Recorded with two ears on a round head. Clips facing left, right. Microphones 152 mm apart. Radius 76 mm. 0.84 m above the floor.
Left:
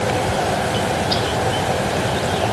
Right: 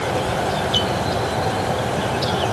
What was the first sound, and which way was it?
Only background noise.